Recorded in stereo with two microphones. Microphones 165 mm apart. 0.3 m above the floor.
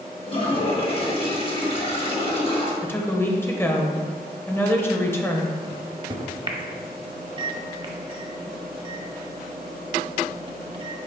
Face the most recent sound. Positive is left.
turn(degrees=-35)  # may be behind; listen again after turning